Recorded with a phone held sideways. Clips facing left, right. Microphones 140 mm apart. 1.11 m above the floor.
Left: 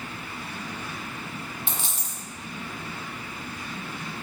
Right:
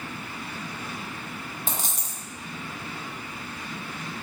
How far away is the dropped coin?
About 0.6 m.